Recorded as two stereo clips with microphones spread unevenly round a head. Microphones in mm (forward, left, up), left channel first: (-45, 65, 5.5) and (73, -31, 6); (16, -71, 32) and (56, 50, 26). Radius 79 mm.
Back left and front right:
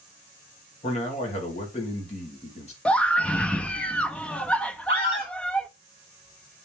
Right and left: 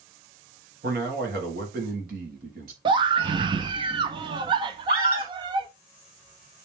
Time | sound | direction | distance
0.8 | a man speaking | 95° left | 2 m
2.9 | a scream | 65° left | 0.6 m
4.9 | a scream | 85° left | 4.5 m